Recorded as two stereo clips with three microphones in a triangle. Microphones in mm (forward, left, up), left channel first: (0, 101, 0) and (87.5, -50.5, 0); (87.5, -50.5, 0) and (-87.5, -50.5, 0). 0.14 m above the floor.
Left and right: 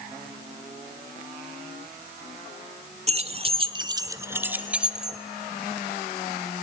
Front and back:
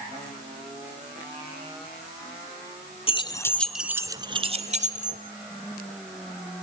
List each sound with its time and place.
3.1 s keys jangling: 35° right, 1.1 m; by 5.2 s 150° right, 1.8 m